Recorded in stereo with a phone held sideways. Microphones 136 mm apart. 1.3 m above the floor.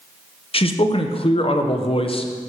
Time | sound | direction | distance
0.5 | a man speaking | 45° left (ahead or behind) | 0.7 m